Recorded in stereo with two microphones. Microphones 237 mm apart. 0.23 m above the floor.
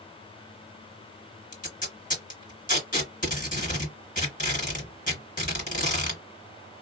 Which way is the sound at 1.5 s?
35° left (ahead or behind).